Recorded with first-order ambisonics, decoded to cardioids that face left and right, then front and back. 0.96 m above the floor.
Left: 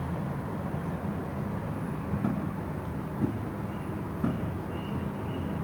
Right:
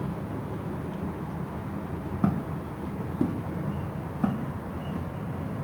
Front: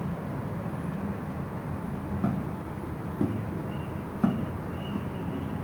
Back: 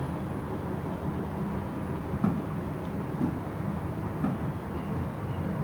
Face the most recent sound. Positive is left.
turn(degrees=-20)